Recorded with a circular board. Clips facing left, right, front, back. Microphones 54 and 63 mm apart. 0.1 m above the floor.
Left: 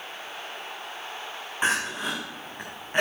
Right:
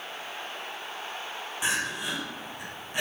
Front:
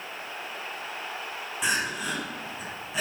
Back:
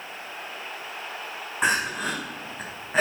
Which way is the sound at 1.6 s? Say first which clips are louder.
Left 4 dB, back 4 dB; 140° left.